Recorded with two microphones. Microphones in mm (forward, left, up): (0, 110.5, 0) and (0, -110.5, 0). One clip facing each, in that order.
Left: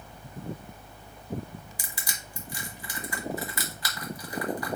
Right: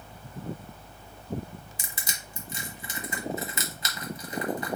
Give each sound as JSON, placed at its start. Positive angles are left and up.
{"t": 1.8, "sound": "crushing", "side_deg": -25, "distance_m": 1.1}